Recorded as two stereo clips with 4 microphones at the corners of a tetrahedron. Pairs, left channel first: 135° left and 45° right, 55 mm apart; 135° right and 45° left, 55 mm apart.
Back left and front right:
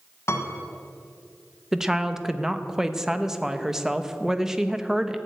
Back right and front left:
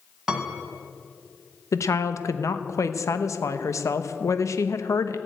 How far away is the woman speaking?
About 0.8 m.